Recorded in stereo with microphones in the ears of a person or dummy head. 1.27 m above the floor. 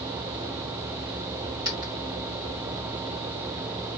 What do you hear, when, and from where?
1.6 s a dropped coin: 20° right (ahead or behind), 1.9 m